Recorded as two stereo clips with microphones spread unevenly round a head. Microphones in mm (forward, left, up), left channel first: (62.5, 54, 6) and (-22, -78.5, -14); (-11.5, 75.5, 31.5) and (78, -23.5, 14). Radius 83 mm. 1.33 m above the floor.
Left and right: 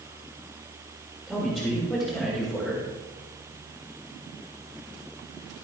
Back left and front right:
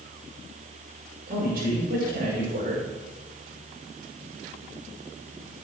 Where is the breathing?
No breathing in this recording.